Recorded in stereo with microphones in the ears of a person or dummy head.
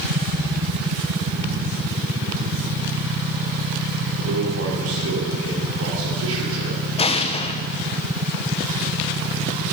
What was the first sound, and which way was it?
A man speaking, 85° right.